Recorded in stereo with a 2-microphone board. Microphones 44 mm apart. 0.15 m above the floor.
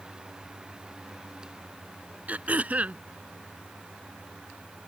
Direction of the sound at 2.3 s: 35° right (ahead or behind).